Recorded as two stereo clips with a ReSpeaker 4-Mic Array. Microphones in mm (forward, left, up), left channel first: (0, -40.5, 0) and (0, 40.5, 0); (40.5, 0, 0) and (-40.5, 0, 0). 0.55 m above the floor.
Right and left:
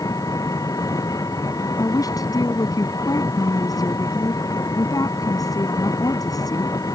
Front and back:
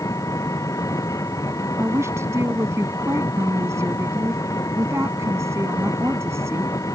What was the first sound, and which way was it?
An engine running, 50° right.